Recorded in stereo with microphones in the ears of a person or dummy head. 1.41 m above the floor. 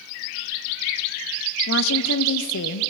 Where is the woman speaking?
65° left (ahead or behind), 1.1 m.